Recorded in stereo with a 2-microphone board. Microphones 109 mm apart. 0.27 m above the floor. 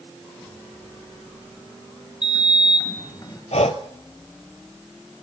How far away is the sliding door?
About 3 m.